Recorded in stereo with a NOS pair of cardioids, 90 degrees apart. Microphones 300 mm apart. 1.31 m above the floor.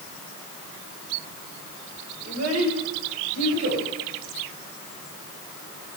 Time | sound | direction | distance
2.2 | a child speaking | 55° right | 4.5 m